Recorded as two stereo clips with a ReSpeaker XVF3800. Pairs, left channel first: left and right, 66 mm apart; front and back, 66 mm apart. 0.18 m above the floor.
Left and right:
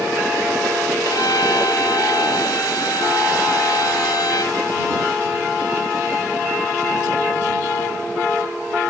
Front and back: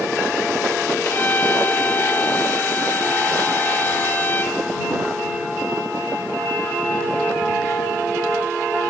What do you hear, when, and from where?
1.1 s a violin: 60° left